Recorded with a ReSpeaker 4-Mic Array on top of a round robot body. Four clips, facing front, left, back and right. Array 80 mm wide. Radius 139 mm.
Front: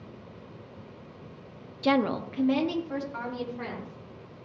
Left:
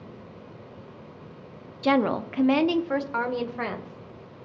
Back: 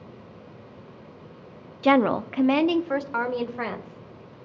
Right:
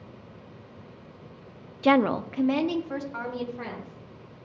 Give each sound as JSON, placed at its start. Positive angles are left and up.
{"t": 1.8, "sound": "a woman speaking", "azimuth_deg": -150, "distance_m": 0.8}